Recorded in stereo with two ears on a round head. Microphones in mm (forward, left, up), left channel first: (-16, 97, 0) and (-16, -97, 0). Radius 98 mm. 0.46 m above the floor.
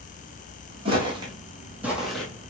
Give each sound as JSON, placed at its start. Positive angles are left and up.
{"t": 0.8, "sound": "footsteps", "side_deg": -25, "distance_m": 1.5}